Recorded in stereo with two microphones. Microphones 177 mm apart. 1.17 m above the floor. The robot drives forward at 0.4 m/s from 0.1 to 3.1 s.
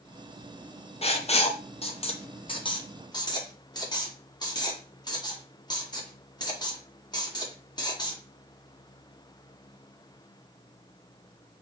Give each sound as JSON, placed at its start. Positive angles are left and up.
{"t": 1.0, "sound": "writing", "side_deg": 35, "distance_m": 0.6}